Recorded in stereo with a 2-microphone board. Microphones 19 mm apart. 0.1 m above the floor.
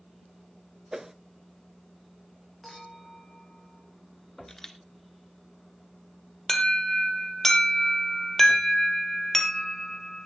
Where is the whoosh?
30° right (ahead or behind), 0.6 m.